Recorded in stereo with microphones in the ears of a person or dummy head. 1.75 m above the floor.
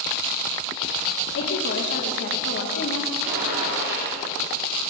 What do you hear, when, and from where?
1.4 s a woman speaking: 75° left (ahead or behind), 3 m
3.2 s a gunshot: 60° right (ahead or behind), 9 m